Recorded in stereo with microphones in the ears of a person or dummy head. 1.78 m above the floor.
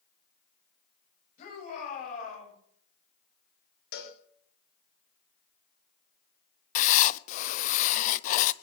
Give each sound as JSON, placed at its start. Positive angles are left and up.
{"t": 1.4, "sound": "a shout", "side_deg": 50, "distance_m": 9.5}
{"t": 3.9, "sound": "a cowbell", "side_deg": 65, "distance_m": 2.0}
{"t": 6.8, "sound": "writing", "side_deg": 55, "distance_m": 0.6}